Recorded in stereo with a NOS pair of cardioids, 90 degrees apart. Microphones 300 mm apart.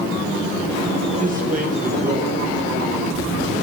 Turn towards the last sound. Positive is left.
turn(degrees=-25)